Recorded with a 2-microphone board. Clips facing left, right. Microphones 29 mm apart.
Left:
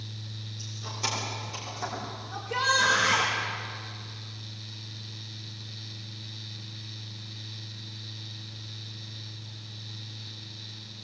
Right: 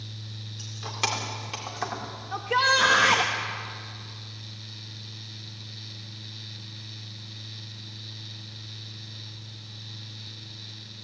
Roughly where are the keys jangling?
Right.